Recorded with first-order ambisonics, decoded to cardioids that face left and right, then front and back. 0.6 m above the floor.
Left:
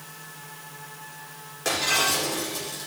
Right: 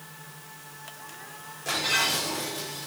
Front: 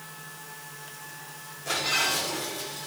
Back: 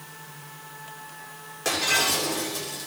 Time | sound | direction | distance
1.6 | breaking glass | 140° left | 8.5 m